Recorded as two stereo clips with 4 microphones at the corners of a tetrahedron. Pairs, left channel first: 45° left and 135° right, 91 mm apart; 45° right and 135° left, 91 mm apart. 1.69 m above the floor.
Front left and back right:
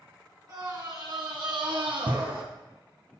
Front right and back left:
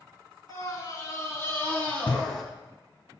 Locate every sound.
0.5 s a scream: 90° right, 1.7 m; by 2.4 s 130° right, 1.1 m